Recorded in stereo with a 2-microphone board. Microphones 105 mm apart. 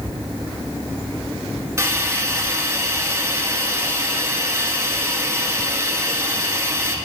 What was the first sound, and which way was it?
A hiss, 25° right (ahead or behind).